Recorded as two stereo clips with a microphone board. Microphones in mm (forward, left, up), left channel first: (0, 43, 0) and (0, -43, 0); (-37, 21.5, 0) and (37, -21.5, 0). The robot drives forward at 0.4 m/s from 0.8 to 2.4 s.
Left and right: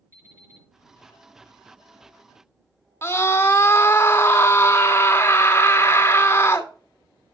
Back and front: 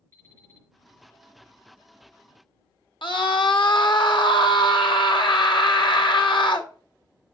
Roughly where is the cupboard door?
No cupboard door in this recording.